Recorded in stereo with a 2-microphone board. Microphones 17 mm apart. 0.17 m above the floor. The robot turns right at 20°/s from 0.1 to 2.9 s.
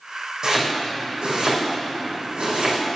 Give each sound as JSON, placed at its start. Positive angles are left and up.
{"t": 0.4, "sound": "chopping", "side_deg": -40, "distance_m": 3.0}